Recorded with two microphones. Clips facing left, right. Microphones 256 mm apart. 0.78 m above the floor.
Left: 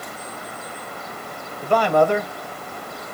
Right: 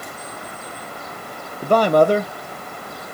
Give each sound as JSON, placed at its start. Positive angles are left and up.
{"t": 1.6, "sound": "a man speaking", "side_deg": -45, "distance_m": 0.5}